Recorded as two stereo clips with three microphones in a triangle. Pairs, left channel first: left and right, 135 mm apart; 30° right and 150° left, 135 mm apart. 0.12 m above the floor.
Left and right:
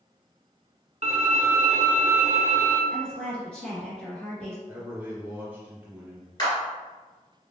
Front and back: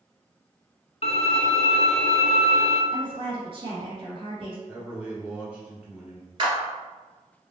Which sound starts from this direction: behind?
A woman speaking, at 2.9 s.